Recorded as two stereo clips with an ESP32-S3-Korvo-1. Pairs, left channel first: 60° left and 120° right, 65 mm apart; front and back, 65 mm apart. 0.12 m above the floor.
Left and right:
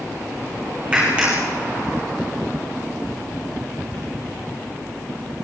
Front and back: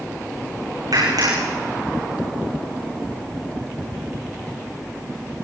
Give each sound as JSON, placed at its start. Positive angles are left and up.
{"t": 0.9, "sound": "a clap", "azimuth_deg": 170, "distance_m": 10.0}